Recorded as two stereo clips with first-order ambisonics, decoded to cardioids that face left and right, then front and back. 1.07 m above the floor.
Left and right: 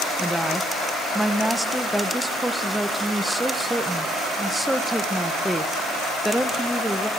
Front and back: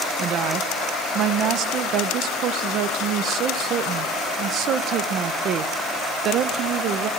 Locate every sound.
0.2 s a woman speaking: 175° right, 0.8 m